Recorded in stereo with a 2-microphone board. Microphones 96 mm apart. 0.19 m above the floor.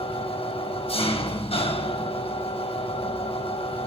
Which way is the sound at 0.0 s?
80° left.